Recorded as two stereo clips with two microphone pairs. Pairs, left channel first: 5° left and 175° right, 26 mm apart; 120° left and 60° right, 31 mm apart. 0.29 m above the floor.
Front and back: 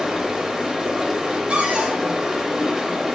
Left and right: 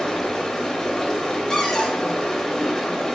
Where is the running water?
160° left, 0.8 m.